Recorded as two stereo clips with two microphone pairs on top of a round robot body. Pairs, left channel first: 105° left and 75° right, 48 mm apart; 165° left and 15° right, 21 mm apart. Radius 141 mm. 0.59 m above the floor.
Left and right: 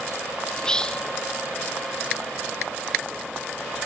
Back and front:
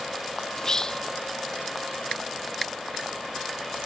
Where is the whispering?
175° right, 0.6 m.